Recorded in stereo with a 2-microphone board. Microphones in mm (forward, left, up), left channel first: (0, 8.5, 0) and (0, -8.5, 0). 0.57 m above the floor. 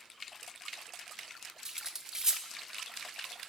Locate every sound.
1.6 s cutlery clinking: 25° right (ahead or behind), 0.5 m